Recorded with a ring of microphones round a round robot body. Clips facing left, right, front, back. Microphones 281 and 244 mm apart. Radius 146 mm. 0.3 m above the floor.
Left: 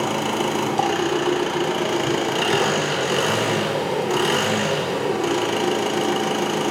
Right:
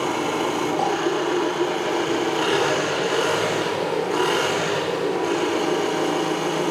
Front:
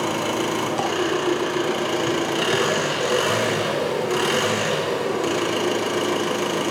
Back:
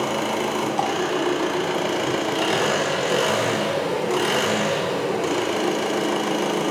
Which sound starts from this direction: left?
An engine running, at 0.0 s.